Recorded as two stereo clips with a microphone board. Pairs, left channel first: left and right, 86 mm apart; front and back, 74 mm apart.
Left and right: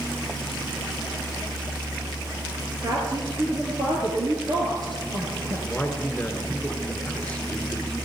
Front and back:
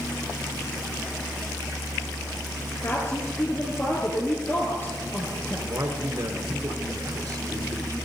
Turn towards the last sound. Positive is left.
turn(degrees=160)